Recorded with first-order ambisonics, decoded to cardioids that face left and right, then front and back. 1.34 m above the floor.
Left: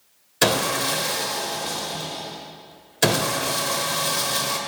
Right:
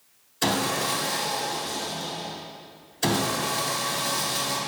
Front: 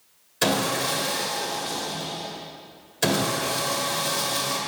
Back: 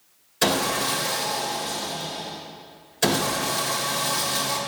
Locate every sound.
0.4 s sawing: 95° left, 1.5 m